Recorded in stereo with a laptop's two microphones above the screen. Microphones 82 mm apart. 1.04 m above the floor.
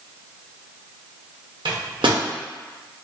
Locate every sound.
1.6 s a microwave: 75° right (ahead or behind), 0.6 m